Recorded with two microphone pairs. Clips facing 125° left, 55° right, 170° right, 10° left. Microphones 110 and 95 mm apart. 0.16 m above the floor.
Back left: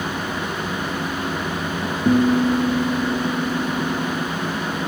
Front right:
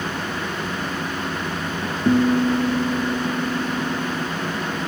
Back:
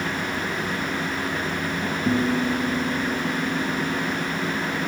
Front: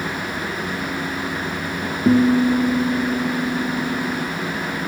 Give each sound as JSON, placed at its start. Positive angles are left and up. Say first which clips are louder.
{"t": 2.0, "sound": "a guitar", "louder": "back left 1 dB, front 8 dB", "azimuth_deg": 35, "distance_m": 1.4}